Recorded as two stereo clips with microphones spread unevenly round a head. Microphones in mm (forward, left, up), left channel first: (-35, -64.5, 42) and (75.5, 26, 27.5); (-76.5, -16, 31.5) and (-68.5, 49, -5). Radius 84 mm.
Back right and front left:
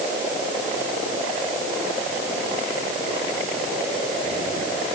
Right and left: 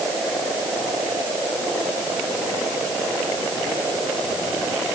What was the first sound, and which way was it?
Only background noise.